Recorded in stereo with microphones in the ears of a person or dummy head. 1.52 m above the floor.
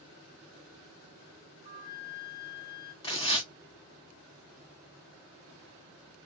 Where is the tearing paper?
25° left (ahead or behind), 1.2 m.